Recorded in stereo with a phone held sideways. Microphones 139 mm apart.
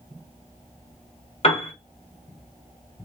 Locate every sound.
1.4 s a piano: 50° left (ahead or behind), 1.1 m